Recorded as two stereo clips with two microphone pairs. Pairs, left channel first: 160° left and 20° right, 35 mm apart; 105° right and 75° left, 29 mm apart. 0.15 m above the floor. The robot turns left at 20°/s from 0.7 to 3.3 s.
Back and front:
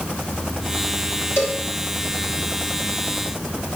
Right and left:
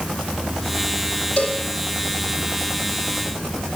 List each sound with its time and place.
1.4 s a cowbell: 155° right, 1.7 m; by 1.6 s 160° right, 1.7 m